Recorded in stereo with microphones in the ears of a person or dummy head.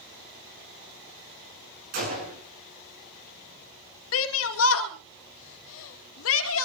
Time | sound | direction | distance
1.9 | a gunshot | 60° right (ahead or behind) | 7 m
4.1 | a shout | 80° left | 2.5 m